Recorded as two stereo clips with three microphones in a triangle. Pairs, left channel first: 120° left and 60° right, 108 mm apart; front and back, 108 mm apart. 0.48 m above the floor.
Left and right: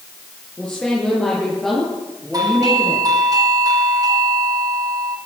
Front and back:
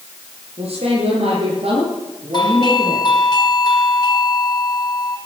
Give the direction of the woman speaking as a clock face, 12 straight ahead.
5 o'clock.